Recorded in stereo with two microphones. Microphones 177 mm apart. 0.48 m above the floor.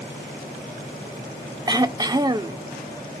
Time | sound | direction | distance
1.7 | throat clearing | 20° right (ahead or behind) | 0.7 m